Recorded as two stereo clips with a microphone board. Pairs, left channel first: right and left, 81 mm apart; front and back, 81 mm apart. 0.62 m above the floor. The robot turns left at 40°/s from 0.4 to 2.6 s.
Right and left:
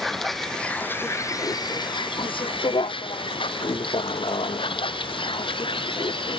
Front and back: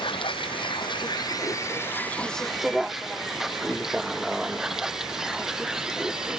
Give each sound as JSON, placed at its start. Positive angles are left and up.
{"t": 0.0, "sound": "a vehicle", "azimuth_deg": 0}